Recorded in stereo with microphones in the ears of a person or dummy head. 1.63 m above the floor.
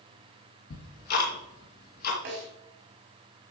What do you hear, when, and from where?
0.7 s ticking: 55° left (ahead or behind), 3 m
2.2 s a snare drum: 60° right (ahead or behind), 6 m